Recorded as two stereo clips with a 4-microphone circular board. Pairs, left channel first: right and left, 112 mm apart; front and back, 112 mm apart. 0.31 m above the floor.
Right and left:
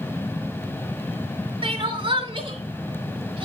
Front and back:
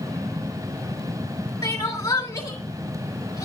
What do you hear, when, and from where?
1.6 s crying: 55° left, 2.5 m